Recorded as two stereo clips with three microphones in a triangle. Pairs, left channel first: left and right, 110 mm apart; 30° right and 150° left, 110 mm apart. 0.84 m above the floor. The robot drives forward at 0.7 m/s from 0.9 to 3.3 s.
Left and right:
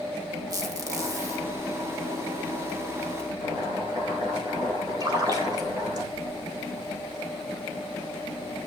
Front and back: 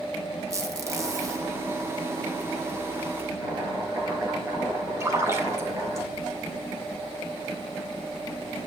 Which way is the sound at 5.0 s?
145° right.